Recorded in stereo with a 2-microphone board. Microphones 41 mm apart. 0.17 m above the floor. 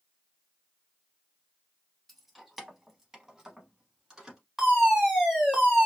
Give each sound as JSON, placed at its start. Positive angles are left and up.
{"t": 2.1, "sound": "keys jangling", "side_deg": 0, "distance_m": 0.7}
{"t": 4.6, "sound": "a fire alarm", "side_deg": -5, "distance_m": 2.5}